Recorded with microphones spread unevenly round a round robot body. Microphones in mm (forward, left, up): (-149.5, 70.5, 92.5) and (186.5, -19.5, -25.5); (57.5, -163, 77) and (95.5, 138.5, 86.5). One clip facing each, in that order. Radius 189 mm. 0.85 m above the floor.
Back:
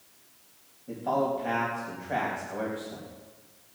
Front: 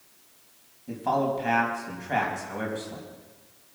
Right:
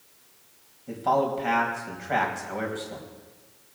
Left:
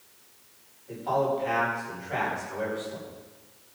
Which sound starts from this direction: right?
A man speaking, at 0.9 s.